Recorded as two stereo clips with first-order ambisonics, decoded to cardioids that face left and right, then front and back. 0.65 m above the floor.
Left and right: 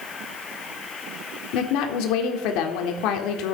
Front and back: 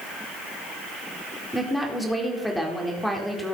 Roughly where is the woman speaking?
Left.